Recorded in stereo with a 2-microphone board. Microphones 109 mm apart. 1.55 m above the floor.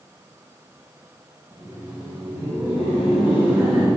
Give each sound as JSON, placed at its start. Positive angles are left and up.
{"t": 1.5, "sound": "laughter", "side_deg": -30, "distance_m": 1.3}